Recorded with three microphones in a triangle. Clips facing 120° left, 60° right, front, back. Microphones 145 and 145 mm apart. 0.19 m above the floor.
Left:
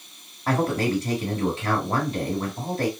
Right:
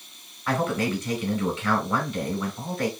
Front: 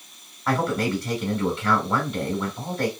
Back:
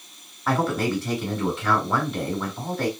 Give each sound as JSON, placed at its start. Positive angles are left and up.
{"t": 0.5, "sound": "a man speaking", "azimuth_deg": 95, "distance_m": 1.3}